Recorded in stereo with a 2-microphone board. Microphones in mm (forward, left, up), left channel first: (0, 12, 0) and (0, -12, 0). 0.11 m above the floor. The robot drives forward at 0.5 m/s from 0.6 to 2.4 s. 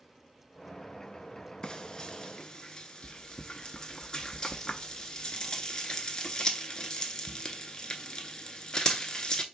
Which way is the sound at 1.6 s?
35° left (ahead or behind).